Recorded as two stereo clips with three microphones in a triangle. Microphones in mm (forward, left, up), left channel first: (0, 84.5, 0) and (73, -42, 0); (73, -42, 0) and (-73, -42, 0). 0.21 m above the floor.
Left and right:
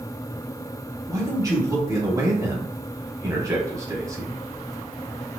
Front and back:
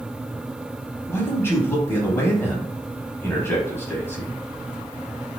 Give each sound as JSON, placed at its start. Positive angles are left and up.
{"t": 1.1, "sound": "a man speaking", "azimuth_deg": -45, "distance_m": 1.1}